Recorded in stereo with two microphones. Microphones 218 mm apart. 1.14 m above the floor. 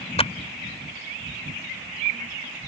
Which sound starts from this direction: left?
A clap, at 0.2 s.